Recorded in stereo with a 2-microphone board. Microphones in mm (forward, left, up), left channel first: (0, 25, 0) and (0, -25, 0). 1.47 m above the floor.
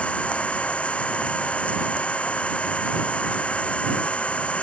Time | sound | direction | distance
0.0 | an engine running | 25° left (ahead or behind) | ?